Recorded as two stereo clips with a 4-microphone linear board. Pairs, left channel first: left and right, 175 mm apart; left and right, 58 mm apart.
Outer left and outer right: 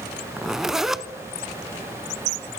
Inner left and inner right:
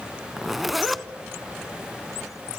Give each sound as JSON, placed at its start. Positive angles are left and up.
{"t": 0.4, "sound": "a zipper", "side_deg": 0, "distance_m": 0.8}